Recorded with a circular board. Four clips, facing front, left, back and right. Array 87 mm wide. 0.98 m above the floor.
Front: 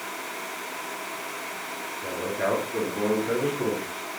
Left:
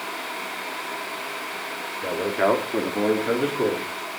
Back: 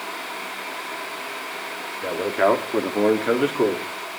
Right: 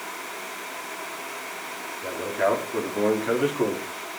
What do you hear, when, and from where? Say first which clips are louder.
2.0 s a man speaking: left 3 dB, back 8 dB; 145° left, 1.9 m; by 3.9 s 170° right, 2 m